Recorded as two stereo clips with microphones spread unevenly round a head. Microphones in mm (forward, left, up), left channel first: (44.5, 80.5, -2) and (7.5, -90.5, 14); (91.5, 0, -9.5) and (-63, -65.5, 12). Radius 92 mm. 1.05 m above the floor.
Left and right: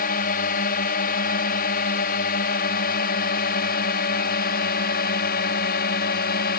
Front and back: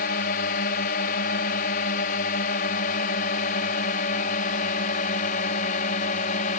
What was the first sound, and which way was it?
A drone, 55° left.